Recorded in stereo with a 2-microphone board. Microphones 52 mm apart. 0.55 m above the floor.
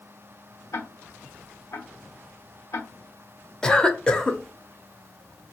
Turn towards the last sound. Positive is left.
turn(degrees=15)  # may be behind; listen again after turning